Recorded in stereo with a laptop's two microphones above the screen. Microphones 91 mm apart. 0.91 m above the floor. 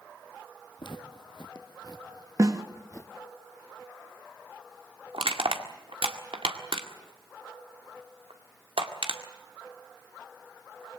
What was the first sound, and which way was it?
Footsteps, 60° left (ahead or behind).